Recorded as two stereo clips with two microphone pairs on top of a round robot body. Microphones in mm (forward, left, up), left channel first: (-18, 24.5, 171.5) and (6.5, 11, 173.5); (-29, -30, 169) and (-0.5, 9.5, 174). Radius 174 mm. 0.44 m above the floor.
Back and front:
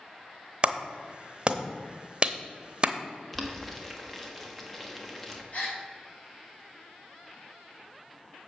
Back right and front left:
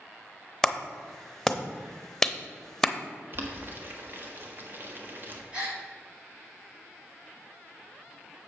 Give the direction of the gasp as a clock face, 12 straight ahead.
8 o'clock.